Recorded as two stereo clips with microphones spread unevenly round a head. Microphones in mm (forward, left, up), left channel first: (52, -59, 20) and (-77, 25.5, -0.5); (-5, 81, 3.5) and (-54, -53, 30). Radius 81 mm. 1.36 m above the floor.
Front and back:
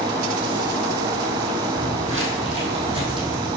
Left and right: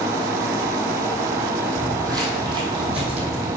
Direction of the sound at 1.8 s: 170° right.